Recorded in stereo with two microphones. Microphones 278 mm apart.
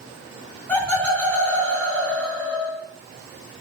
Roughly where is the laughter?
Centre.